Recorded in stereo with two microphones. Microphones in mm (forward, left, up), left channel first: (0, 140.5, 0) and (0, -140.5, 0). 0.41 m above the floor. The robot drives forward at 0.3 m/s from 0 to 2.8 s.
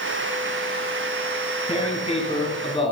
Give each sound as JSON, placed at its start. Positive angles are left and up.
{"t": 1.7, "sound": "tearing paper", "side_deg": 25, "distance_m": 2.0}